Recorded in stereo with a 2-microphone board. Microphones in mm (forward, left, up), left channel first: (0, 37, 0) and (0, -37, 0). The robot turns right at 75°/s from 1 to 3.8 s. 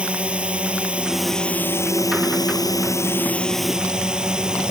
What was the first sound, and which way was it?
A drone, 20° right.